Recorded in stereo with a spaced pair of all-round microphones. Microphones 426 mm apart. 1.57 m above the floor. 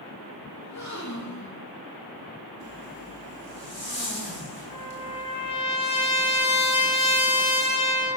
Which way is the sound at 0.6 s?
40° left (ahead or behind).